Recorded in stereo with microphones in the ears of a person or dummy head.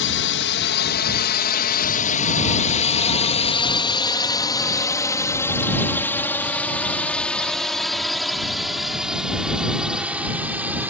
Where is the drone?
55° left (ahead or behind); by 10.9 s 10° right (ahead or behind).